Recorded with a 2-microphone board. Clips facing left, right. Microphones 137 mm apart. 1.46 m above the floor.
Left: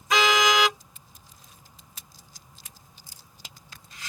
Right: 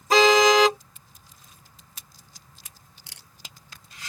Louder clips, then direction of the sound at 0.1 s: Right 6 dB; 35° right (ahead or behind).